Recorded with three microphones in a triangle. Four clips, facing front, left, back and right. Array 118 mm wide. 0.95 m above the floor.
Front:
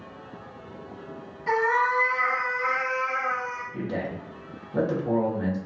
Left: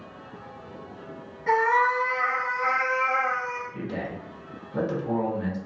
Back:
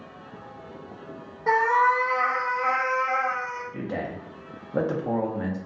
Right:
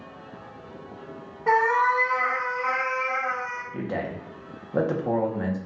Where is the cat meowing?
140° right, 0.7 m; by 3.6 s 125° left, 0.8 m.